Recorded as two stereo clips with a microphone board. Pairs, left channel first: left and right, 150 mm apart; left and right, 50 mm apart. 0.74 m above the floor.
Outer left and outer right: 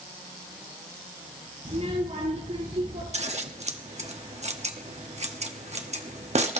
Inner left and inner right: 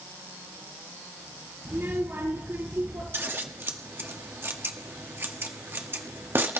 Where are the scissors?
45° right (ahead or behind), 1.1 m.